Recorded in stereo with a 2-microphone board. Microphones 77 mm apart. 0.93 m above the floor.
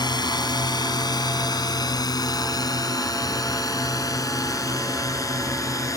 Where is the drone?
70° left (ahead or behind); by 6.0 s 45° left (ahead or behind).